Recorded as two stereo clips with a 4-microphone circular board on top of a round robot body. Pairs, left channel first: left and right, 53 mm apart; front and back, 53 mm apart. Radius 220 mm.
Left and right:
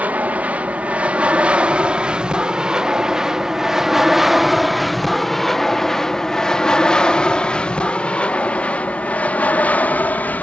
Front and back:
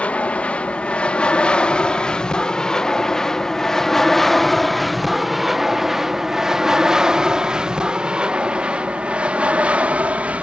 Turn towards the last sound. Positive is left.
turn(degrees=130)